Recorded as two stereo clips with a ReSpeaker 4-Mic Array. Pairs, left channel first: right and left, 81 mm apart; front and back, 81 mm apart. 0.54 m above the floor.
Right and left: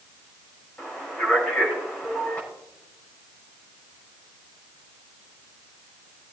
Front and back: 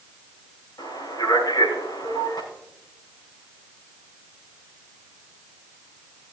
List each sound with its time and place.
0.8 s a man speaking: 20° right, 5 m